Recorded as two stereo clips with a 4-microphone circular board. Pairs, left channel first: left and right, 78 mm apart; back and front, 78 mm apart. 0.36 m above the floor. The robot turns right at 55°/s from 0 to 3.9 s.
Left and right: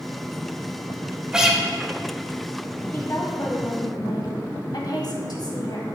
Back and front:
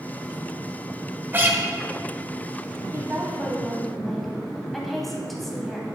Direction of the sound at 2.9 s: 40° left.